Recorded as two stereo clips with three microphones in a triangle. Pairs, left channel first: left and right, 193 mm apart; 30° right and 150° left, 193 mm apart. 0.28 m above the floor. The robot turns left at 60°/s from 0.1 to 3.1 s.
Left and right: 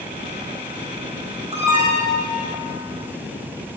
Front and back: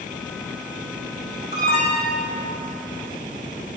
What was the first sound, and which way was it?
An alarm, 40° right.